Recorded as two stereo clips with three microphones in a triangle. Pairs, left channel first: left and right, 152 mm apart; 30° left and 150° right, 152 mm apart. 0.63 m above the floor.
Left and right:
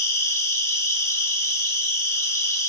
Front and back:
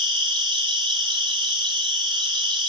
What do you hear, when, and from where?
0.0 s an insect: 160° left, 2 m